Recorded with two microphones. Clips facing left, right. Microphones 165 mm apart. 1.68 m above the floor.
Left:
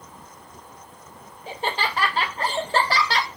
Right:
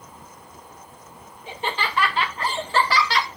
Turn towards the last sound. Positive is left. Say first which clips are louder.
# left 1 dB
turn(degrees=35)  # may be behind; listen again after turning